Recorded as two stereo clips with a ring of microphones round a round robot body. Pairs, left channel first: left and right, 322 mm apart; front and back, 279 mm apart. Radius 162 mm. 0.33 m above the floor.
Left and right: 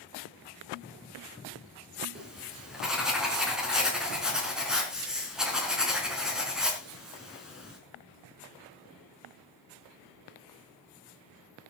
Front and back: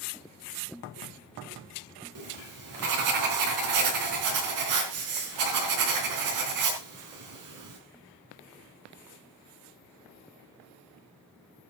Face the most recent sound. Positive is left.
turn(degrees=180)